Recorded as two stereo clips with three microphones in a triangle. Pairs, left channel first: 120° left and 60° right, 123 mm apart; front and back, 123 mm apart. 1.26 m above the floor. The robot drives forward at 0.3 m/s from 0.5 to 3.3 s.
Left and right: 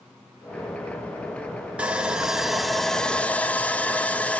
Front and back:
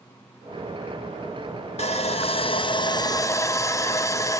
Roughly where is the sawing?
Ahead.